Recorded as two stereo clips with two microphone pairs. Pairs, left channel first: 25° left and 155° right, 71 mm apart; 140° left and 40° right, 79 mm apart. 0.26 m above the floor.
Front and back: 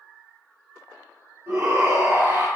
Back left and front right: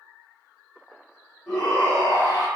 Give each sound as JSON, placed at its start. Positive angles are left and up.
{"t": 1.5, "sound": "a shout", "azimuth_deg": -150, "distance_m": 2.0}